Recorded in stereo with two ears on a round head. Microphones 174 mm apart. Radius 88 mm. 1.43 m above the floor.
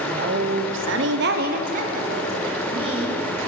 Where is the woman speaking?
40° right (ahead or behind), 0.6 m; by 3.4 s 25° right (ahead or behind), 1.7 m.